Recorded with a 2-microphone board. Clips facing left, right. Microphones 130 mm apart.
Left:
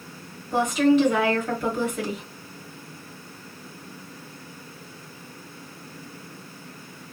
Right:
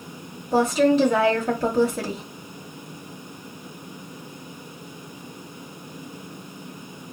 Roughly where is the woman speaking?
Right.